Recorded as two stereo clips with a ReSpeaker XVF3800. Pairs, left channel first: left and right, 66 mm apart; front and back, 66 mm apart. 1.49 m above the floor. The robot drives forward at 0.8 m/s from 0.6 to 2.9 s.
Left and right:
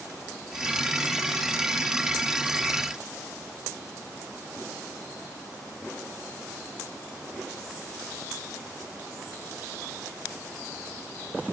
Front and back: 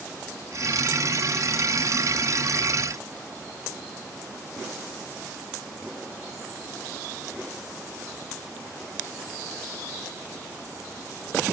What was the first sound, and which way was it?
Only background noise.